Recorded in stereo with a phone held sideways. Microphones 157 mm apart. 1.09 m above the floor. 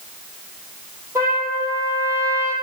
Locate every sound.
1.1 s a trumpet: 15° right (ahead or behind), 5 m